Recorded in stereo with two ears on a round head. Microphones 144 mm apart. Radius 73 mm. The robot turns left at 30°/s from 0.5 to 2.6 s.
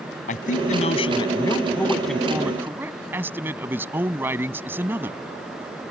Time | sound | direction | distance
0.3 | a man speaking | 50° left | ?